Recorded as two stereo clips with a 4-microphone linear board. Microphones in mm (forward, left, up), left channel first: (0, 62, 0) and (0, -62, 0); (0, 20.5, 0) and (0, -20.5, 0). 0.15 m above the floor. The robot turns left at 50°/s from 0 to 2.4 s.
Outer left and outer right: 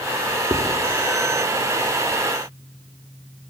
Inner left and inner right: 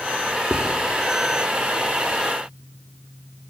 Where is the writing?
30° right (ahead or behind), 4.5 m; by 0.7 s 40° right (ahead or behind), 4.5 m.